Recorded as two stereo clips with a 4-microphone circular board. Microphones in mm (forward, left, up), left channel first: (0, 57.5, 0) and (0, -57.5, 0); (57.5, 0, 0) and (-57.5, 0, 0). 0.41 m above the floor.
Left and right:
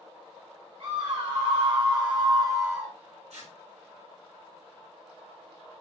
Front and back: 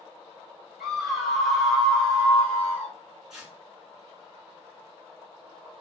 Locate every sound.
0.8 s a scream: 95° right, 2 m; by 3.0 s 40° right, 1.2 m
3.3 s tearing paper: 95° right, 1.9 m